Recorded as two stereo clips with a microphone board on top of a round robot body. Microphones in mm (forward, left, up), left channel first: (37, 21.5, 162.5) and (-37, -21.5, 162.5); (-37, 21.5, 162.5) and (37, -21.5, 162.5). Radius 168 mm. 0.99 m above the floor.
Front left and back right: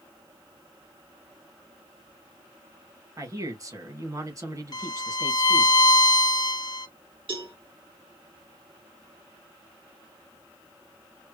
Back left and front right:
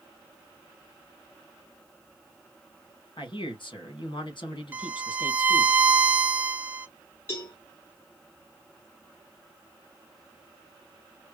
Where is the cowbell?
150° right, 2.5 m.